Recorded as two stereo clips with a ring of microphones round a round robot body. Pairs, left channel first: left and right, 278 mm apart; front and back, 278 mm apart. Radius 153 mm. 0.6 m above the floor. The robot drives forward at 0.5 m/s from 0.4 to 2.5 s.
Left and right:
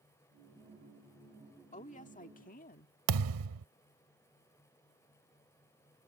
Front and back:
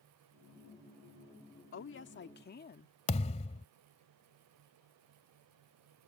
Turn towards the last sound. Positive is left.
turn(degrees=-70)